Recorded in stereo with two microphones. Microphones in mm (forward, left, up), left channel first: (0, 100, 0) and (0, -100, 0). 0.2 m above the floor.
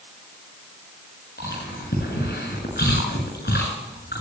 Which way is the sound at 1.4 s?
55° left (ahead or behind).